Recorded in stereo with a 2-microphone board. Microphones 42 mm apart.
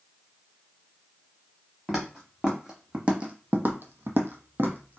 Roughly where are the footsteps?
Centre.